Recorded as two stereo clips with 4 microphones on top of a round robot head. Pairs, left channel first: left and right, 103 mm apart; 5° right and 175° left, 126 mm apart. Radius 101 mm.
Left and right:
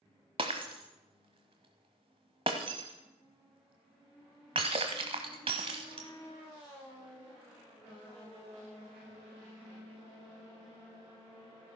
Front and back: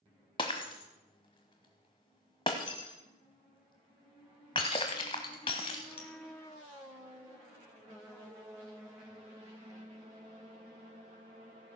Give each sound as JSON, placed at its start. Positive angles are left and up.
{"t": 0.4, "sound": "breaking glass", "azimuth_deg": -55, "distance_m": 1.0}